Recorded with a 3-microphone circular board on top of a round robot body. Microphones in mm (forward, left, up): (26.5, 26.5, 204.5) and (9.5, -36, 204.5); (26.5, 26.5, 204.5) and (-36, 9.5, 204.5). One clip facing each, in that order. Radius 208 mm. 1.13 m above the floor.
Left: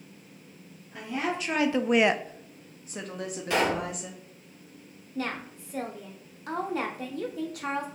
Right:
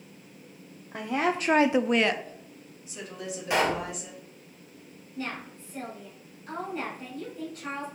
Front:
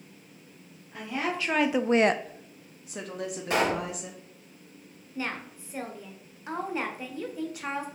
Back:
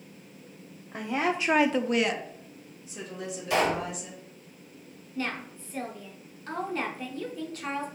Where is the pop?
30° right, 1.7 m.